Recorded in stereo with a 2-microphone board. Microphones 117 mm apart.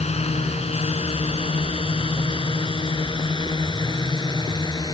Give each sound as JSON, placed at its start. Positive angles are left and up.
{"t": 0.0, "sound": "a drone", "side_deg": 65}